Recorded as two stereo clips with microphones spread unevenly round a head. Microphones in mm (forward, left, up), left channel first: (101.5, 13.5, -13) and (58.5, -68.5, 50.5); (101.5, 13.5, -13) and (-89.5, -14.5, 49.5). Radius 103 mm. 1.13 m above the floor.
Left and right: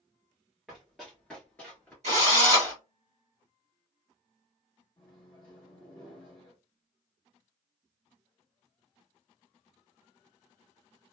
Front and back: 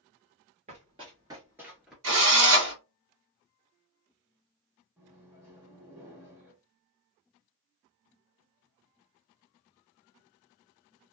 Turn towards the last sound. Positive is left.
turn(degrees=105)